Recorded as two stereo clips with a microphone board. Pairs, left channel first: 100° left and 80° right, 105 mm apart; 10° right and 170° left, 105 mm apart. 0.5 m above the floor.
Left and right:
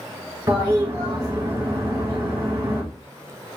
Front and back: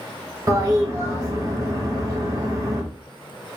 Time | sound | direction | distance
0.5 | a toilet flushing | 135° right | 3 m